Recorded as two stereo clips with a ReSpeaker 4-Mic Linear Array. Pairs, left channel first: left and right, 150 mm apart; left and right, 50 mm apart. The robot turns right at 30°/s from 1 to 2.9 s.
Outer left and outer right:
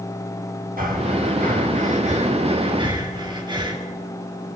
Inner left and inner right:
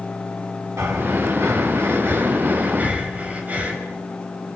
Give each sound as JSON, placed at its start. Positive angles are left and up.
{"t": 0.8, "sound": "breathing", "side_deg": -90, "distance_m": 4.5}